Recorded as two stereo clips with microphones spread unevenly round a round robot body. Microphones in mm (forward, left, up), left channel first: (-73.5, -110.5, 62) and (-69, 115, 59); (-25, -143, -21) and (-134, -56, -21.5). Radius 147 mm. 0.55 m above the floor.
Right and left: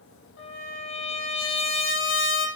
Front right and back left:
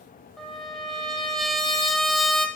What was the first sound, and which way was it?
A trumpet, 125° right.